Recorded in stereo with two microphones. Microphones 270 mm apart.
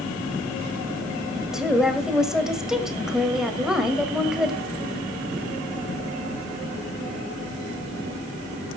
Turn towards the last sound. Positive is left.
turn(degrees=0)  # may be behind; listen again after turning